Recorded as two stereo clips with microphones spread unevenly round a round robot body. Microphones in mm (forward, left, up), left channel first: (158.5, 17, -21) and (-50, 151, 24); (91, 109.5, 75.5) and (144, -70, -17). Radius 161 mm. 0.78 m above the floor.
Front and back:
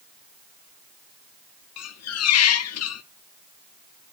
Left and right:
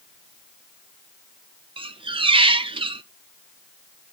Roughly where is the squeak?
Ahead.